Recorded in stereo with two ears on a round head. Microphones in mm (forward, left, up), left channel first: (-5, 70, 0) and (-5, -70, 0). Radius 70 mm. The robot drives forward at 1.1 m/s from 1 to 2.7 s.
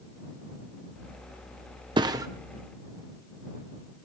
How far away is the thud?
About 1.1 m.